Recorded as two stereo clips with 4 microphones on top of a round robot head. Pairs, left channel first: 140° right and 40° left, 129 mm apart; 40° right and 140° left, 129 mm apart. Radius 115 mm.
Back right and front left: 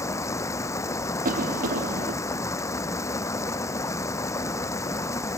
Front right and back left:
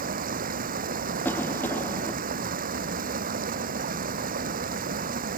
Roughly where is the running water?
Behind left.